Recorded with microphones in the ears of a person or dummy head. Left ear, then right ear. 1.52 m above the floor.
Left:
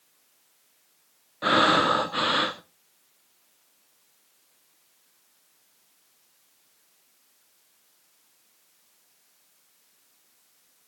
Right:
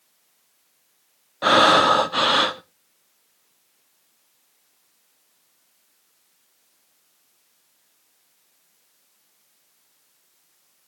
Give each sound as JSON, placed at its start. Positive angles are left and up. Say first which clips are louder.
{"t": 1.4, "sound": "breathing", "louder": "right 6 dB", "side_deg": -20, "distance_m": 0.6}